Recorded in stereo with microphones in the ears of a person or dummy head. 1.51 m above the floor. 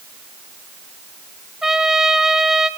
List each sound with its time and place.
1.6 s a trumpet: centre (ahead or behind), 2 m